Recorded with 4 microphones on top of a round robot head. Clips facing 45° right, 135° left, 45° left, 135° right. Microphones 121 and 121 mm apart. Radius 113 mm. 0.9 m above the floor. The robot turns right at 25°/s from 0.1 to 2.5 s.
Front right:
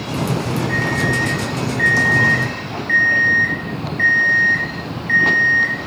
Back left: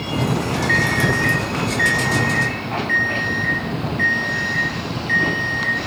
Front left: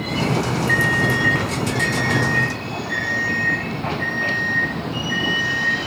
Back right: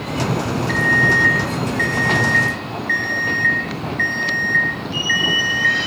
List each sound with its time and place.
0.7 s an alarm clock: 160° left, 10 m; by 5.8 s 155° right, 10 m